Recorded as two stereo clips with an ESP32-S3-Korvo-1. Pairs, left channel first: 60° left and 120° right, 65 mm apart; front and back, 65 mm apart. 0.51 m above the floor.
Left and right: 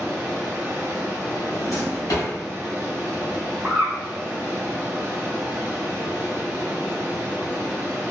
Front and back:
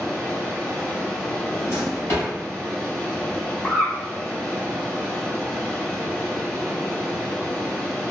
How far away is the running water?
About 1.1 m.